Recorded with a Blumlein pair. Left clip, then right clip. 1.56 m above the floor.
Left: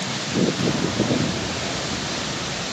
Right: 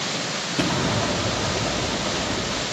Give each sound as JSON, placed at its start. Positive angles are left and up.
{"t": 0.6, "sound": "an explosion", "azimuth_deg": -25, "distance_m": 4.0}